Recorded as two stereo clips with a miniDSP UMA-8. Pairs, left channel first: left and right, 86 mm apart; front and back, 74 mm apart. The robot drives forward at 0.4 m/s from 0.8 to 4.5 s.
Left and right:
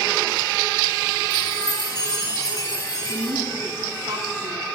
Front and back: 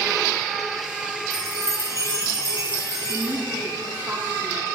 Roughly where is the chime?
Behind left.